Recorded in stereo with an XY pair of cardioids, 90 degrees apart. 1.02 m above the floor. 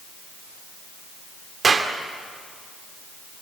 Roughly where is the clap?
Ahead right.